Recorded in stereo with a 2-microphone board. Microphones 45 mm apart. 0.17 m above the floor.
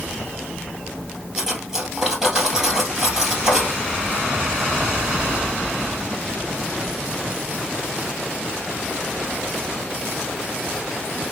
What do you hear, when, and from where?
1.4 s cutlery clinking: 10° right (ahead or behind), 2.5 m